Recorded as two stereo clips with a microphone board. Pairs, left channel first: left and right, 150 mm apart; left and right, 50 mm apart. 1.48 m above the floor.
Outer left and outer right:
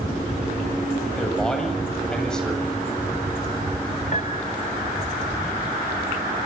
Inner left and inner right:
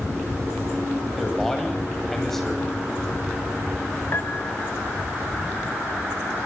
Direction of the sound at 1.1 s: 5° left (ahead or behind).